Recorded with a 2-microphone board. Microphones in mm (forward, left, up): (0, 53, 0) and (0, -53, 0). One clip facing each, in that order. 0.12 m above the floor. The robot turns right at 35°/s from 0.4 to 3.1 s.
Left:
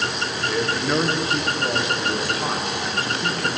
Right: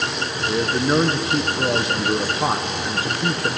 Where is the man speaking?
125° right, 1.6 m; by 3.5 s 35° right, 1.6 m.